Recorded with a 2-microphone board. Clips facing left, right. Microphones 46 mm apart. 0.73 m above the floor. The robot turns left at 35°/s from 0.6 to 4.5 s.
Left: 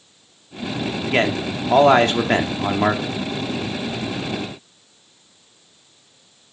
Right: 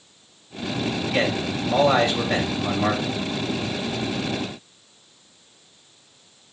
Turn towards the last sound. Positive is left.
turn(degrees=-5)